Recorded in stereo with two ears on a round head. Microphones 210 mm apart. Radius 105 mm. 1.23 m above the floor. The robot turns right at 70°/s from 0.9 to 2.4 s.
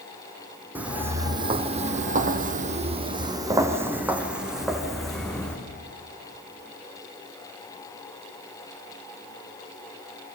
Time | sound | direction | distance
0.8 | footsteps | 10° right (ahead or behind) | 2.5 m